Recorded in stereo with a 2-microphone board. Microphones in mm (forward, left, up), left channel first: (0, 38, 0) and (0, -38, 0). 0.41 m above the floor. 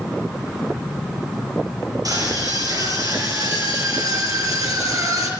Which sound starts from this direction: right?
A scream, at 2.0 s.